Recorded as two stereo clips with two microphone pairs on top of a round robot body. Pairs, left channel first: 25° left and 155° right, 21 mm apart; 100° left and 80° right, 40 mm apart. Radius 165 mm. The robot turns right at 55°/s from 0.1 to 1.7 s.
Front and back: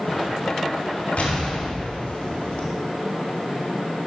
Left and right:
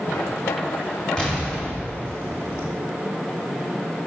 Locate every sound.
1.2 s an explosion: 30° left, 3 m; by 2.7 s 60° left, 3 m